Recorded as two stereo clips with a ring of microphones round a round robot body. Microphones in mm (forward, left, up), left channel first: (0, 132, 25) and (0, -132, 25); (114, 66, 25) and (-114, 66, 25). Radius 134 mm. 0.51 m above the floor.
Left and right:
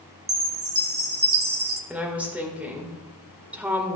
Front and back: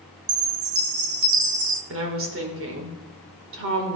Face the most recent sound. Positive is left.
turn(degrees=-175)